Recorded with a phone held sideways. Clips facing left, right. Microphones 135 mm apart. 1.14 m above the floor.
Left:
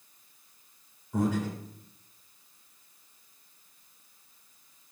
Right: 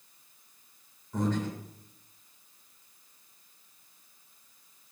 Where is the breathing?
10° left (ahead or behind), 2 m.